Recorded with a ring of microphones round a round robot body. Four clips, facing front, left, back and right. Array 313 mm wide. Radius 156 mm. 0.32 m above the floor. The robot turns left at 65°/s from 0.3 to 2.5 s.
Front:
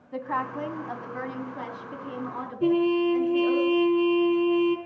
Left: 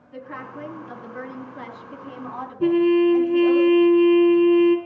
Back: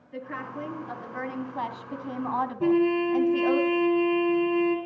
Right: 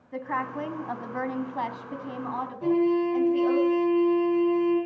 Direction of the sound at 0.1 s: 40° right.